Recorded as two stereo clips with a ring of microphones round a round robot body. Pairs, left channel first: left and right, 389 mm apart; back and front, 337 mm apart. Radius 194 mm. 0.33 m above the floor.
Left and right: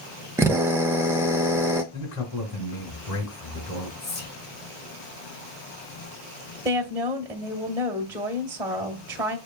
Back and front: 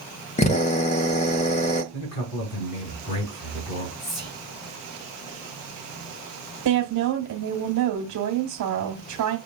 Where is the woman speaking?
20° right, 1.5 m.